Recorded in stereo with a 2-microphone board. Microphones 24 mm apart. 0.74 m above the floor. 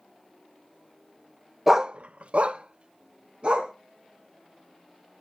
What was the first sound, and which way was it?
A dog barking, 15° right (ahead or behind).